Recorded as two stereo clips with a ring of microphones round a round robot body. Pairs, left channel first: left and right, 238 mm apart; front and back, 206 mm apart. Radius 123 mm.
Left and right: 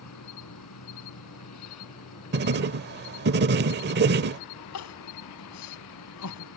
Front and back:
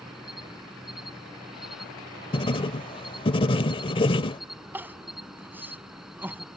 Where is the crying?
100° left.